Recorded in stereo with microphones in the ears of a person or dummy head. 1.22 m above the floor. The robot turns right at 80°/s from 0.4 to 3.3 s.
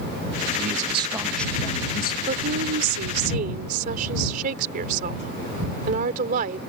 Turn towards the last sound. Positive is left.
turn(degrees=-50)